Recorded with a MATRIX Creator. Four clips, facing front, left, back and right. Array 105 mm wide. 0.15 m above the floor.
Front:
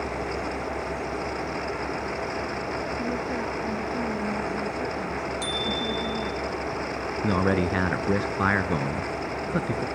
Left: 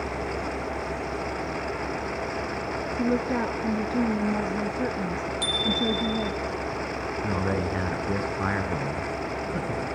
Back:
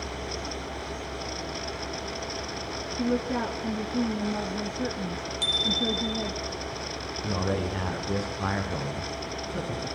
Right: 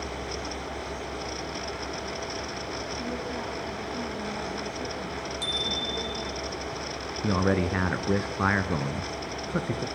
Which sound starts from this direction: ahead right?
A man speaking, at 7.2 s.